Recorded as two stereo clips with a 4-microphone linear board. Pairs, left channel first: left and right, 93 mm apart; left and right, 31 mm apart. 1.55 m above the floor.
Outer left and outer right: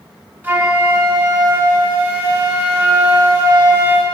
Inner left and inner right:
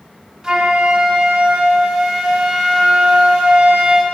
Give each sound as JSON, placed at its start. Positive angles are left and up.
{"t": 0.4, "sound": "a flute", "side_deg": -20, "distance_m": 1.4}